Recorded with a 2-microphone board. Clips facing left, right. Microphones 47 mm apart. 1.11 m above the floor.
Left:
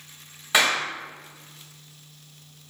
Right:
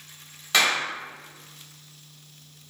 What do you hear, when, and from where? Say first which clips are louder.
0.5 s a clap: left 1 dB; 10° left (ahead or behind), 4 m